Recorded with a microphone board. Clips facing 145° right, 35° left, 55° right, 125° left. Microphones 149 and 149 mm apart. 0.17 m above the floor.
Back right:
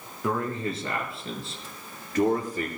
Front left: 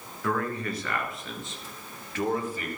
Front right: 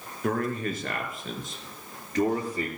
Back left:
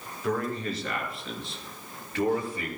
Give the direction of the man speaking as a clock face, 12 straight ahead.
3 o'clock.